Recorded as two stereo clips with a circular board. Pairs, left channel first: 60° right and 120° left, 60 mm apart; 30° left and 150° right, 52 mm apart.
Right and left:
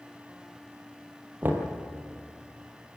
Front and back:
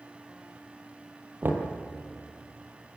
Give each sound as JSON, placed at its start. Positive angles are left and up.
{"t": 1.4, "sound": "knocking", "azimuth_deg": 170, "distance_m": 2.5}